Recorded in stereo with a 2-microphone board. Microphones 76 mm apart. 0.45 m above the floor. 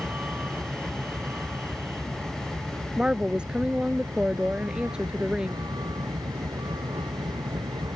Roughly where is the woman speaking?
Centre.